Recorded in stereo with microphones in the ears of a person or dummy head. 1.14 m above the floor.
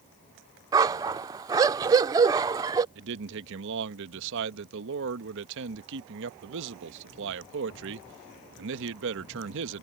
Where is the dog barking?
20° right (ahead or behind).